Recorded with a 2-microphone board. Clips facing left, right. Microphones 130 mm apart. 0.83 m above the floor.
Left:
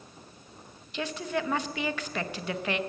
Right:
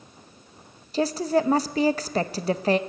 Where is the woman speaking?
40° right (ahead or behind), 0.6 m.